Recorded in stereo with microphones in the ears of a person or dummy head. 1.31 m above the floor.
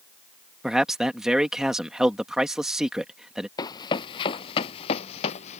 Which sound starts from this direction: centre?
A man speaking, at 0.6 s.